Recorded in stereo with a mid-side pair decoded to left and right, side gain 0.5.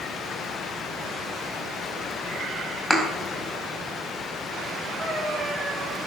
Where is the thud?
Straight ahead, 4.5 m.